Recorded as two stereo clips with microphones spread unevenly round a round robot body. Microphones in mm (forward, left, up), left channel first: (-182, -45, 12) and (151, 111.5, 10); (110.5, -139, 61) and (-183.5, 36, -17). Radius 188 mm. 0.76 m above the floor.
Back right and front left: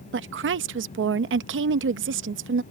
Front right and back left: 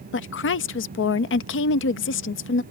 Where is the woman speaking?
15° left.